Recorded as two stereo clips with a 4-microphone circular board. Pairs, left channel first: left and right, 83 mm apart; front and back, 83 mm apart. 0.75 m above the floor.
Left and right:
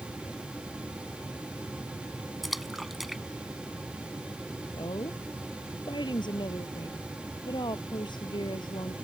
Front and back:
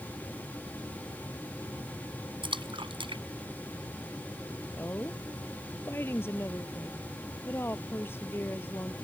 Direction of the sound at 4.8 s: 60° left.